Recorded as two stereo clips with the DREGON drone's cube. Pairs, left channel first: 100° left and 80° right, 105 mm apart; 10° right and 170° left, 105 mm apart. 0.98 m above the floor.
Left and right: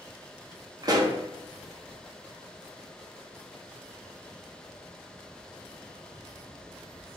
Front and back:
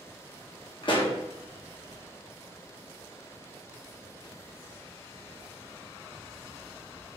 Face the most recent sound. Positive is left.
turn(degrees=-30)